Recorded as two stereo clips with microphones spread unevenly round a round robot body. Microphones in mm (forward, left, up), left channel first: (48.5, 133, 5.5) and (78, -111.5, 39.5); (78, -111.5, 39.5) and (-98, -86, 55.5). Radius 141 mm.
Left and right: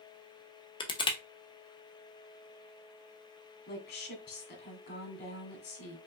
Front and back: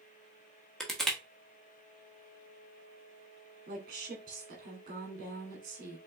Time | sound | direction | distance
0.8 | crushing | 70° left | 0.9 m
3.7 | a woman speaking | 130° left | 1.8 m